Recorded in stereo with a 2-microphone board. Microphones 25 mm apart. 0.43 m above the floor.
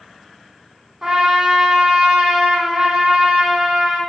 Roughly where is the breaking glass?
No breaking glass in this recording.